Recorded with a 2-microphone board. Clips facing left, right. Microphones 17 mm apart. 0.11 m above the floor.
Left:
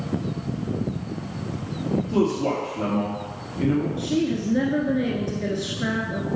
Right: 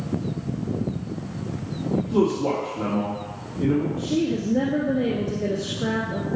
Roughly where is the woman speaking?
Left.